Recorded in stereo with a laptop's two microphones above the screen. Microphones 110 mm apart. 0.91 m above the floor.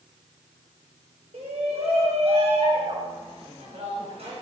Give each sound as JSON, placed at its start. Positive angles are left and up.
{"t": 1.3, "sound": "a shout", "side_deg": -70, "distance_m": 3.0}